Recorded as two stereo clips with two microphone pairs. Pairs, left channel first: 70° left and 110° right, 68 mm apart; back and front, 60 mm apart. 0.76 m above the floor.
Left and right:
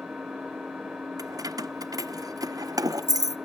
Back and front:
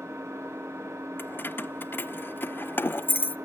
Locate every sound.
0.0 s an engine running: 25° right, 1.5 m
1.2 s keys jangling: 125° right, 0.6 m